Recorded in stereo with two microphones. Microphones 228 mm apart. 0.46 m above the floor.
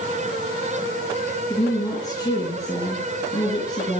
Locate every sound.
1.5 s a woman speaking: 15° left (ahead or behind), 5 m